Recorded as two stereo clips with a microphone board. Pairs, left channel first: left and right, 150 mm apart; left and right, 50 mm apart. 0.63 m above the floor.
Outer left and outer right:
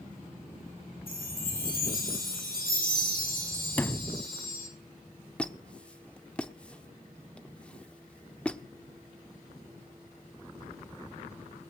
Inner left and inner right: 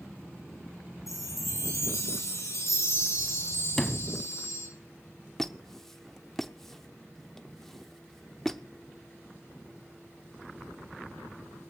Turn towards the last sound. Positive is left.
turn(degrees=5)  # may be behind; listen again after turning